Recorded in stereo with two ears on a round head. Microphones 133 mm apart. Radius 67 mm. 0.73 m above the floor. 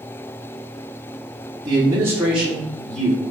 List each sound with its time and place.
1.6 s a man speaking: 30° right (ahead or behind), 1.0 m; by 3.2 s 10° left (ahead or behind), 1.5 m